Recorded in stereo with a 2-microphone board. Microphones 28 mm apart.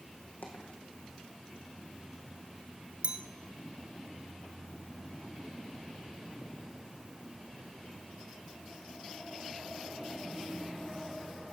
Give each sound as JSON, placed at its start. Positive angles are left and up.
{"t": 0.4, "sound": "a dropped coin", "side_deg": 85, "distance_m": 3.0}
{"t": 3.0, "sound": "a clink", "side_deg": -45, "distance_m": 1.3}